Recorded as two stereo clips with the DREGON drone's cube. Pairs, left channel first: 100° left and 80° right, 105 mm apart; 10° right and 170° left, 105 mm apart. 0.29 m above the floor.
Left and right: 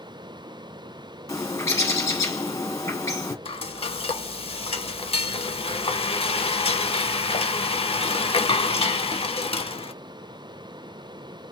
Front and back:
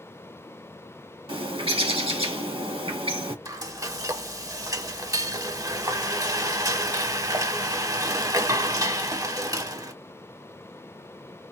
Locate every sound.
1.3 s a bird: 155° left, 1.2 m
3.5 s frying: 115° left, 0.5 m